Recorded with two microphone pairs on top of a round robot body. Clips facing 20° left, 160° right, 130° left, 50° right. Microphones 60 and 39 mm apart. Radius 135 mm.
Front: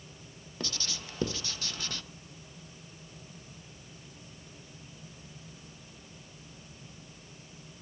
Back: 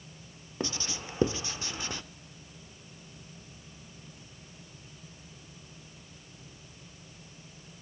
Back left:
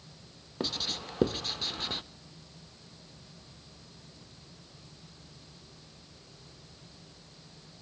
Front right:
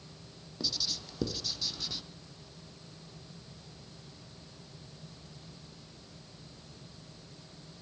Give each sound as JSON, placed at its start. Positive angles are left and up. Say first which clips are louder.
{"t": 0.6, "sound": "writing", "louder": "back 4 dB, back left 3 dB", "azimuth_deg": 155, "distance_m": 0.6}